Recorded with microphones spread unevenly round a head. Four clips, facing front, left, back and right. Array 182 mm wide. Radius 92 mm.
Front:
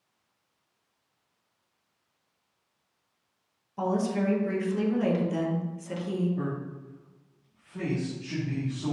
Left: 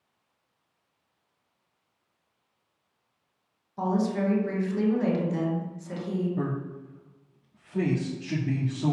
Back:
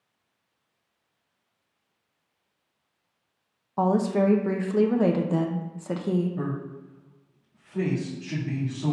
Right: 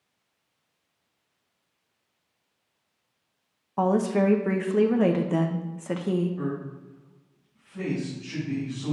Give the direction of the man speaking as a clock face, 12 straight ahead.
8 o'clock.